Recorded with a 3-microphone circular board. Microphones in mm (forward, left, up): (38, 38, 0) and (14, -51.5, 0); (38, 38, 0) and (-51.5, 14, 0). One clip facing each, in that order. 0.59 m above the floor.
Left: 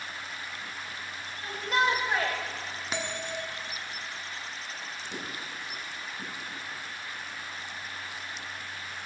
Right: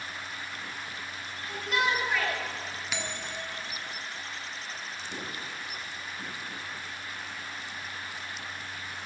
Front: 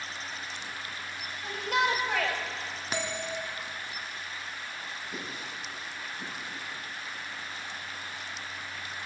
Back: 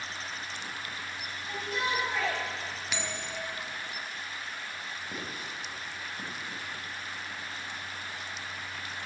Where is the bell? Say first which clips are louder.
Left 5 dB, front 6 dB; 45° left, 1.5 m.